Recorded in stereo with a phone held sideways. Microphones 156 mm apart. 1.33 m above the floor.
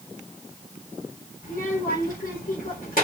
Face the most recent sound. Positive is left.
turn(degrees=65)  # may be behind; listen again after turning